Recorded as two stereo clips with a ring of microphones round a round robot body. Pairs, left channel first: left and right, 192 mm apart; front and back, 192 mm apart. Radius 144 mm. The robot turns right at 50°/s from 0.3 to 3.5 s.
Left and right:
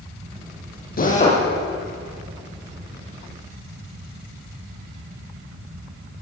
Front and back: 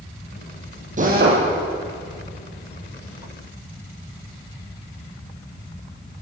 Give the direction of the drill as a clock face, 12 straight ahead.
8 o'clock.